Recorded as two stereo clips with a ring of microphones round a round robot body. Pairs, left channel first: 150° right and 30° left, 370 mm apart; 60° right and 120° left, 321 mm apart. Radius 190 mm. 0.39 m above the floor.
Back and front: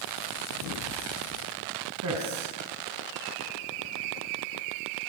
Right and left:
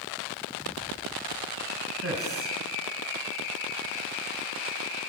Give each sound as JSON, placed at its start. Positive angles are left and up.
{"t": 2.0, "sound": "a man speaking", "azimuth_deg": 75, "distance_m": 4.0}